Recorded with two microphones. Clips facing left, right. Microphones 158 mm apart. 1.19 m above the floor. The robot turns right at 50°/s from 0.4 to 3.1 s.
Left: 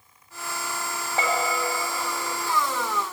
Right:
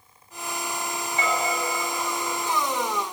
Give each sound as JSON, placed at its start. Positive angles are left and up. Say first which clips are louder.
{"t": 1.2, "sound": "a bell", "louder": "left 1 dB", "side_deg": 60, "distance_m": 1.6}